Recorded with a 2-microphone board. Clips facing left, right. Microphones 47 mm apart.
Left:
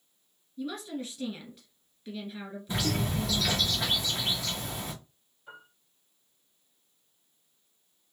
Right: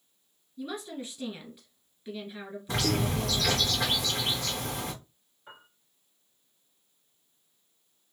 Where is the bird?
70° right (ahead or behind), 2 m.